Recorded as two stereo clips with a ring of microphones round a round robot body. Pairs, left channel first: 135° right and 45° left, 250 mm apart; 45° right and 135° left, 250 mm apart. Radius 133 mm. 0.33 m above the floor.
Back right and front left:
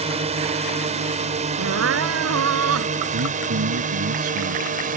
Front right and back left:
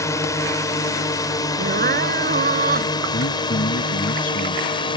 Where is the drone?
20° left; by 5.0 s 15° left.